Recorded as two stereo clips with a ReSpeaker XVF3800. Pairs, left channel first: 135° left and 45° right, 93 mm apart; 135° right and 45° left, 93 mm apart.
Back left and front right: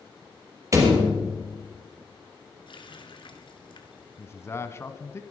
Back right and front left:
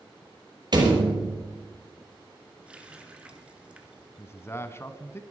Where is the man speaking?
Straight behind, 1.2 m.